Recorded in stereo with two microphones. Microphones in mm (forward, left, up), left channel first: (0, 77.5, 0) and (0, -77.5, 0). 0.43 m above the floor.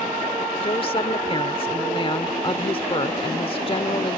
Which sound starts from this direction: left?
A woman speaking, at 0.6 s.